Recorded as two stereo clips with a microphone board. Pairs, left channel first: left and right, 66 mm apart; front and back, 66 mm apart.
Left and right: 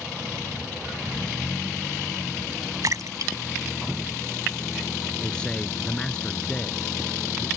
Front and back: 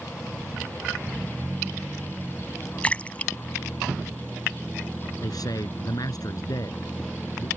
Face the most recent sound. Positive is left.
turn(degrees=15)